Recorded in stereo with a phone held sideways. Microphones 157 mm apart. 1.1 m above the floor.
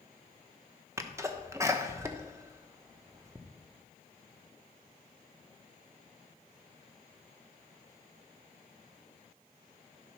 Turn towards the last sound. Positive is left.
turn(degrees=-20)  # may be behind; listen again after turning